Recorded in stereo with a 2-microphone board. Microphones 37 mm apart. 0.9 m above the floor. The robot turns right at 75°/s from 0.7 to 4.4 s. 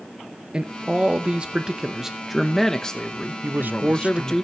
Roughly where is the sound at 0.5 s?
Right.